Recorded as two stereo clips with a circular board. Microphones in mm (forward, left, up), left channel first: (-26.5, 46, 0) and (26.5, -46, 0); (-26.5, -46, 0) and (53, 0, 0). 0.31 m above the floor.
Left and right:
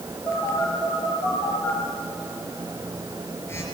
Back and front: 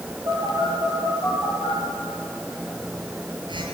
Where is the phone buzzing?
55° left, 5.5 m.